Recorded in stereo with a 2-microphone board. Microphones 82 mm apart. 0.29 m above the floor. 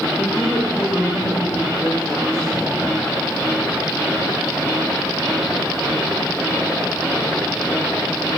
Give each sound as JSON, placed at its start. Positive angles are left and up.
{"t": 0.2, "sound": "a woman speaking", "side_deg": 10, "distance_m": 8.0}